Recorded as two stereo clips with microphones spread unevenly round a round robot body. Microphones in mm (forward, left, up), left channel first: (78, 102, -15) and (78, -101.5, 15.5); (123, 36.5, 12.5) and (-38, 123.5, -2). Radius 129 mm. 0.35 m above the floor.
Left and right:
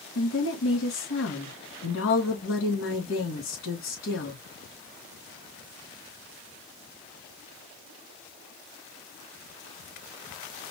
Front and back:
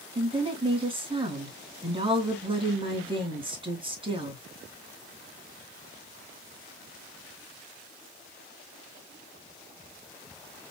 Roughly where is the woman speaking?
Left.